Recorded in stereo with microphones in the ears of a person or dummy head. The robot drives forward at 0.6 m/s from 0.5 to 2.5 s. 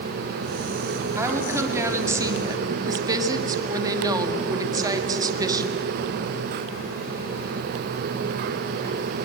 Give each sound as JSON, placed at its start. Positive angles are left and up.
{"t": 1.2, "sound": "a woman speaking", "side_deg": -15, "distance_m": 3.0}